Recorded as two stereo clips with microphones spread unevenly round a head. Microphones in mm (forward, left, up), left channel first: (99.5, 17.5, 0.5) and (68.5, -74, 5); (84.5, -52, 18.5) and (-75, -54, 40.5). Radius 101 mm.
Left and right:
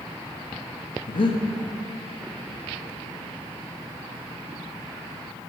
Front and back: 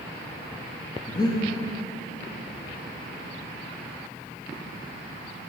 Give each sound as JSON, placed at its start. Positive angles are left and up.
{"t": 1.1, "sound": "breathing", "azimuth_deg": 60, "distance_m": 0.5}